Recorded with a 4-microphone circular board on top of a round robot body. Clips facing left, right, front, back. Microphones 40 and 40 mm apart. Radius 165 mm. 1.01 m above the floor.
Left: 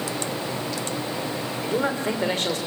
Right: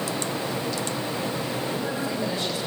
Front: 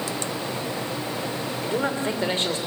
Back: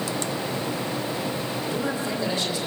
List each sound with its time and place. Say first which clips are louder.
1.6 s a man speaking: left 4 dB, front 4 dB; 55° left, 3.5 m